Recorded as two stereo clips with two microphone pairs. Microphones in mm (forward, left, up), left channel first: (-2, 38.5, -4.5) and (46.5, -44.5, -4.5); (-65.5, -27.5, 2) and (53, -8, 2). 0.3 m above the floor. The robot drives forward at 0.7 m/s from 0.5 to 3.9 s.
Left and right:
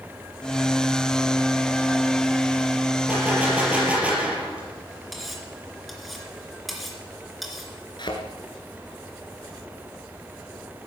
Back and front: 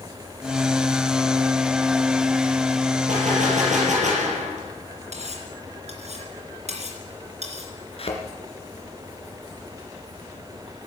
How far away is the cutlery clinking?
About 2.5 m.